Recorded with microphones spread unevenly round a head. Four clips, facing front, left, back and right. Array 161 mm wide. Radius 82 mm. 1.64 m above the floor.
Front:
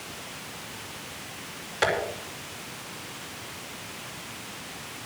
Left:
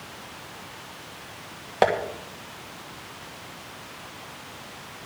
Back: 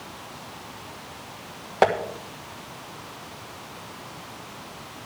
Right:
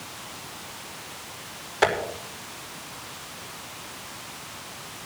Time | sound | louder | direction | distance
1.8 | tapping | left 2 dB, back 7 dB | 140° left | 2.5 m